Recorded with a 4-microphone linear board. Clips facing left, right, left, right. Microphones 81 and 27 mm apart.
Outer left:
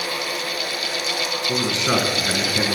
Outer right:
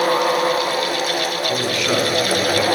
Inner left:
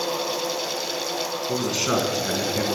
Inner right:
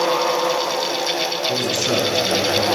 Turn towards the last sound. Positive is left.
turn(degrees=25)  # may be behind; listen again after turning